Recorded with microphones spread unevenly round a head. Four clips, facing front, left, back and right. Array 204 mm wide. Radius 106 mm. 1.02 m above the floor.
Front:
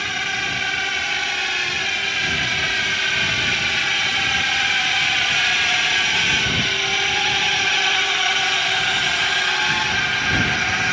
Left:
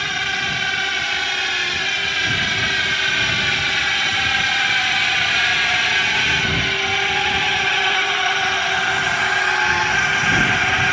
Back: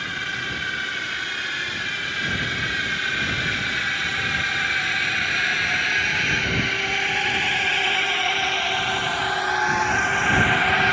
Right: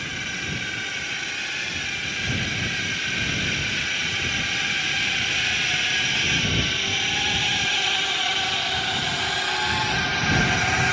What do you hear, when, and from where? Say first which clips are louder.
0.0 s a drone: left 8 dB, front 3 dB; 60° left; by 10.9 s 170° left